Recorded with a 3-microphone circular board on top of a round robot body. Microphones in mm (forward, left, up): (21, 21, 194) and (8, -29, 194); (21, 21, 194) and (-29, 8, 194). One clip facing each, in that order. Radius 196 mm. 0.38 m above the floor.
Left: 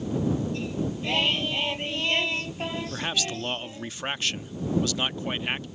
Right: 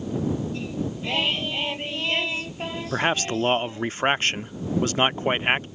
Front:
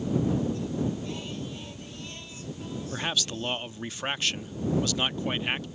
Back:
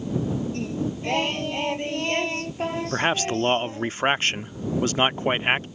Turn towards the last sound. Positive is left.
turn(degrees=-135)